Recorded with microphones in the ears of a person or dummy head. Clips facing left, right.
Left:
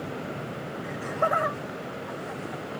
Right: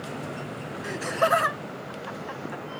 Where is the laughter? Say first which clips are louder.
Right 3 dB; 85° right.